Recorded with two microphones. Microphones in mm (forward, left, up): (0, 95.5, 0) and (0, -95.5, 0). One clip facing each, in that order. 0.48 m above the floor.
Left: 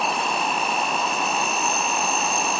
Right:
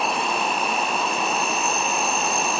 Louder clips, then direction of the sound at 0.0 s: Right 1 dB; centre (ahead or behind).